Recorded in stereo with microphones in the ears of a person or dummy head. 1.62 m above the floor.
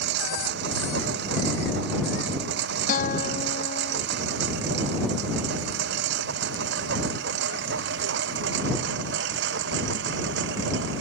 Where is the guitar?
45° left (ahead or behind).